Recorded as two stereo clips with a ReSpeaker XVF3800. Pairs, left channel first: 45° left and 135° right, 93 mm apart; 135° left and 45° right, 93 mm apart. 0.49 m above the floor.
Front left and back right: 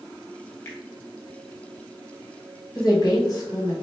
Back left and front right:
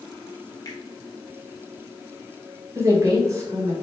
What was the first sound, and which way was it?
A finger snap, 95° left.